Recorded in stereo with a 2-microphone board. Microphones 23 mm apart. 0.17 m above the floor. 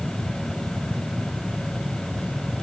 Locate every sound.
Only background noise.